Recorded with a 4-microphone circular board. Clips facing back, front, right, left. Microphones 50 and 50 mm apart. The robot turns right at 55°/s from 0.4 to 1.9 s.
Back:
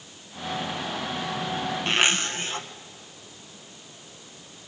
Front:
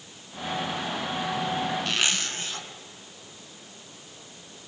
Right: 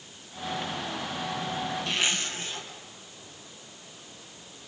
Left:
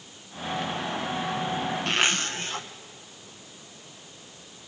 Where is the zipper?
120° left, 1.5 m; by 2.7 s 125° left, 1.5 m.